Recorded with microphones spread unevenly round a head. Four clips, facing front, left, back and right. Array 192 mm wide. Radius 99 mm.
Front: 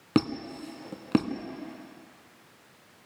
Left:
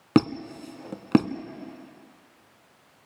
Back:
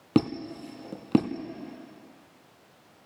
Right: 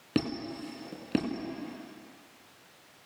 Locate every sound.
0.1 s a squeak: 110° left, 1.1 m